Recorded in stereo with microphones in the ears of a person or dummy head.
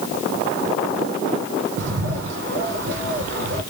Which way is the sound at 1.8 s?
65° right (ahead or behind).